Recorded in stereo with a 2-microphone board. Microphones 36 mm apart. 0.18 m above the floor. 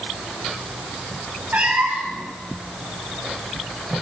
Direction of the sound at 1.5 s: 60° right (ahead or behind).